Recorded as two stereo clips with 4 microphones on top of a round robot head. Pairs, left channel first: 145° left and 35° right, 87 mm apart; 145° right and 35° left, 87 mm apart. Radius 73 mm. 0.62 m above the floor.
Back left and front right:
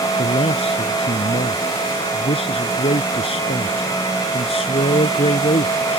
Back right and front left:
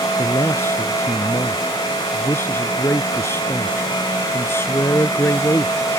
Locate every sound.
0.2 s a man speaking: 155° left